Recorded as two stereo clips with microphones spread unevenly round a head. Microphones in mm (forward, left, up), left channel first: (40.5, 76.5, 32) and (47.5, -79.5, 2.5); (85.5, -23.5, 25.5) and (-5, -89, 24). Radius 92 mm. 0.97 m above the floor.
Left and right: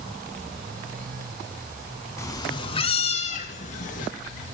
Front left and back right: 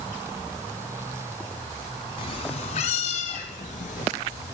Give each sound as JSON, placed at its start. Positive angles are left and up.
{"t": 2.2, "sound": "a cat meowing", "azimuth_deg": 40, "distance_m": 1.1}